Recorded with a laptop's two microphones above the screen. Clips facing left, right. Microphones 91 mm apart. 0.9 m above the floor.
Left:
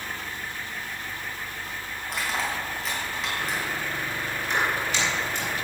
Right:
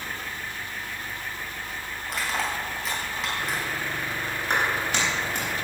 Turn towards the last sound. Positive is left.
turn(degrees=-60)  # may be behind; listen again after turning